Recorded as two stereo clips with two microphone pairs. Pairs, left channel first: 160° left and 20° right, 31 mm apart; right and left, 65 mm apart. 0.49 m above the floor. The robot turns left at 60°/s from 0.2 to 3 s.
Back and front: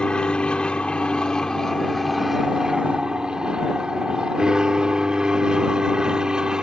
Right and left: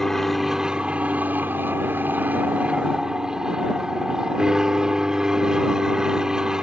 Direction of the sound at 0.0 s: 175° right.